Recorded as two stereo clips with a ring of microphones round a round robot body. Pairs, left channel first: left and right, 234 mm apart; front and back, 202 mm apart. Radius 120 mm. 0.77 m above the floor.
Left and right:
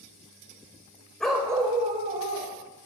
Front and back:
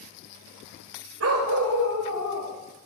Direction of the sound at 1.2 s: 175° left.